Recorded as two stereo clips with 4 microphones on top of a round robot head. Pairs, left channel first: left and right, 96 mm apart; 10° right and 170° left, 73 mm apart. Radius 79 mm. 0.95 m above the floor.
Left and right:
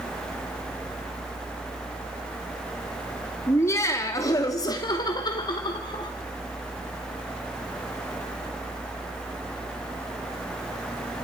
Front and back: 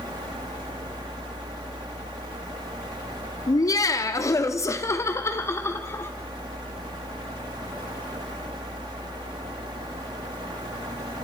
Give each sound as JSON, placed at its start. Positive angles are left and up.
{"t": 3.5, "sound": "laughter", "azimuth_deg": 25, "distance_m": 2.5}